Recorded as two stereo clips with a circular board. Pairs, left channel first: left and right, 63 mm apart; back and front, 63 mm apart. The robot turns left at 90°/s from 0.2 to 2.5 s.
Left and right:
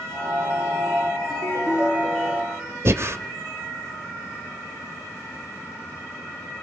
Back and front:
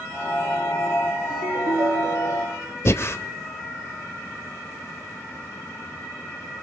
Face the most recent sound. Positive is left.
turn(degrees=-135)